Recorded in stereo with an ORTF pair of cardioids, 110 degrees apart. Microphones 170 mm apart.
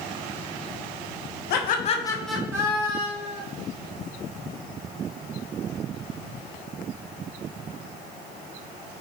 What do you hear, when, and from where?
1.5 s laughter: 70° left, 0.7 m; by 3.4 s 35° right, 1.4 m